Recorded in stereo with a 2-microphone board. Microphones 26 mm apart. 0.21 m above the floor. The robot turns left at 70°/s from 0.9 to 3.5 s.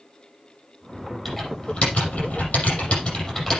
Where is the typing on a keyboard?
Centre (ahead or behind), 6.5 m; by 3.6 s 20° left (ahead or behind), 6.5 m.